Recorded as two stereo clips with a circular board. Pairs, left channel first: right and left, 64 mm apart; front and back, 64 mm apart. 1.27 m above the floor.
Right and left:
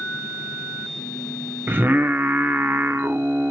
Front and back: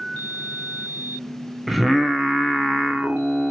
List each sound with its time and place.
1.7 s singing: 90° left, 0.9 m